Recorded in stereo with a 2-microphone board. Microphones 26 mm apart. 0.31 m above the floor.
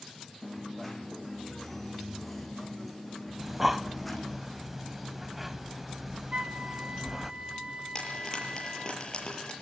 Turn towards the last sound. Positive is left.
turn(degrees=25)  # may be behind; listen again after turning